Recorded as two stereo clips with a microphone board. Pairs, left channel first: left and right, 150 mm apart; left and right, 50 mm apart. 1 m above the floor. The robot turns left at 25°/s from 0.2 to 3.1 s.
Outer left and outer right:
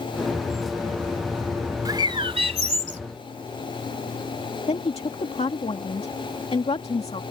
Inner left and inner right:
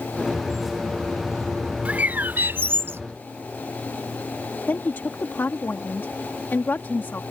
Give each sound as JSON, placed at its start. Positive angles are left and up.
{"t": 1.9, "sound": "a bird", "side_deg": -25}
{"t": 4.7, "sound": "a woman speaking", "side_deg": 40}